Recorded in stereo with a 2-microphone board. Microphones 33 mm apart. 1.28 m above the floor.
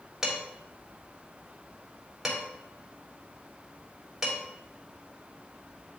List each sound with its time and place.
0.2 s dishes clattering: 20° right (ahead or behind), 2.5 m